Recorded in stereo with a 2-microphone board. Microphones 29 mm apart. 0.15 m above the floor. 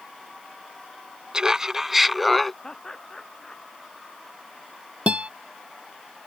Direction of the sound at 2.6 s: 20° left (ahead or behind).